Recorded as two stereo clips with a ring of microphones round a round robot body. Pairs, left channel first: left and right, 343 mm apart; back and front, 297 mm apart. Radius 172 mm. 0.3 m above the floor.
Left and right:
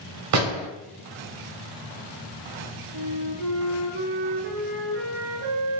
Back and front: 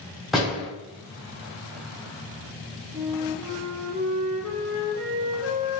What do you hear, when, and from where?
0.3 s a door slam: 90° right, 1.0 m
2.9 s a flute: 70° right, 0.8 m